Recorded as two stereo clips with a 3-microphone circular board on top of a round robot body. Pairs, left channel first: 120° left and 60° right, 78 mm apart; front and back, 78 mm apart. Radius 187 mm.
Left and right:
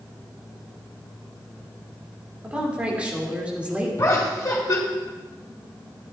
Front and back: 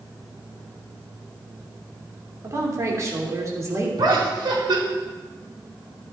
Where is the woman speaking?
135° right, 2.5 m.